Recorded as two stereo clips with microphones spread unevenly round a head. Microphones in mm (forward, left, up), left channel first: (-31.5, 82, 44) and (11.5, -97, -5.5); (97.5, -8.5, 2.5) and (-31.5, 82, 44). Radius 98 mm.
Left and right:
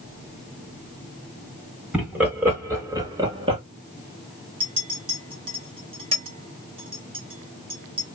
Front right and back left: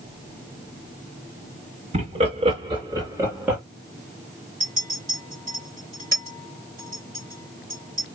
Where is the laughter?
155° right, 2 m; by 3.6 s 120° right, 1.4 m.